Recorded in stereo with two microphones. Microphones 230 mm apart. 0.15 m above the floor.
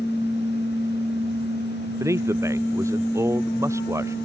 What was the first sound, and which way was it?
A man speaking, 15° right (ahead or behind).